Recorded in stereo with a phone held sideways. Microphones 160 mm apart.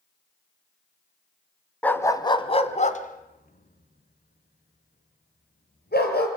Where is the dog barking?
10° left (ahead or behind), 1.5 m; by 6.3 s 85° left, 5 m.